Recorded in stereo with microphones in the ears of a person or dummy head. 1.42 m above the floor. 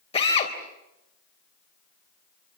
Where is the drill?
35° left (ahead or behind), 3.5 m.